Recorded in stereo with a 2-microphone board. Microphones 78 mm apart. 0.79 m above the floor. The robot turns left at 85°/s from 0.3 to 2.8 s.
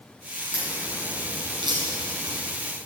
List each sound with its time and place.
0.5 s a crack: 10° right (ahead or behind), 7 m